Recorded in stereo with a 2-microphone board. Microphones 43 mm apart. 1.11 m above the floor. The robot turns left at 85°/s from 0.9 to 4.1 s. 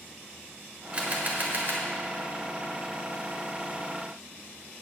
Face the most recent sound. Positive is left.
turn(degrees=55)